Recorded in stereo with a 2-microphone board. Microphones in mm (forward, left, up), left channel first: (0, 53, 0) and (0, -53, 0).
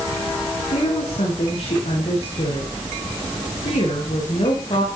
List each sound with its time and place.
0.7 s a woman speaking: 75° left (ahead or behind), 9 m